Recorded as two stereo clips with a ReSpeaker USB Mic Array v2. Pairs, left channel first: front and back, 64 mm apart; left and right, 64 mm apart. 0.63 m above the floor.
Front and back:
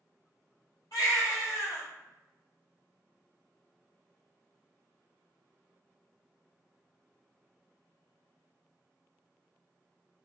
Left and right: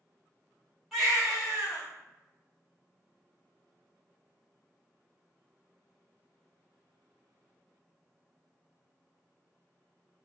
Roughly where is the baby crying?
Ahead.